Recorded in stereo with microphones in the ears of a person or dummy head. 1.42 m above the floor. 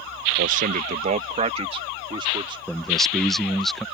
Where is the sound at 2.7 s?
Centre (ahead or behind).